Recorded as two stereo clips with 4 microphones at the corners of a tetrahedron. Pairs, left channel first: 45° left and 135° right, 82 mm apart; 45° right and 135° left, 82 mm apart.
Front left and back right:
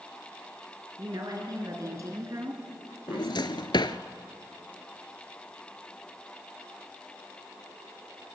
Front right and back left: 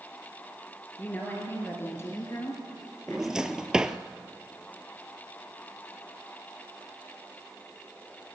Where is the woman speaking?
110° right, 3 m; by 3.6 s 75° right, 2.5 m.